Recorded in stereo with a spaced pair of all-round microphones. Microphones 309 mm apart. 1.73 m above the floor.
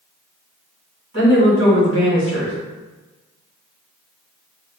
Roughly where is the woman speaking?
Right.